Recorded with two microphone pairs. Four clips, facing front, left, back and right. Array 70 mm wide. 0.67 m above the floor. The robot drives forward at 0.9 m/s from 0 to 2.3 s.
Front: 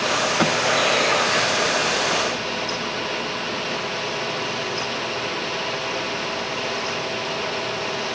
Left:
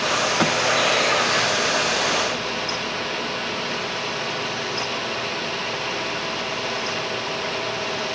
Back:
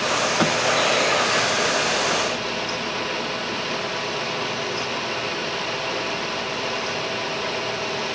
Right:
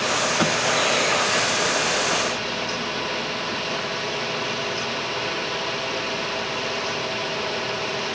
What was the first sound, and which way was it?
Only background noise.